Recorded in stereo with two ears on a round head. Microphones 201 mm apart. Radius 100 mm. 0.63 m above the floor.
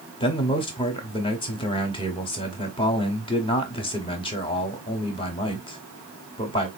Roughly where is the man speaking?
Left.